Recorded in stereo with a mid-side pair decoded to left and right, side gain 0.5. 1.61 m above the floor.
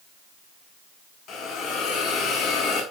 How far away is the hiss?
About 6 m.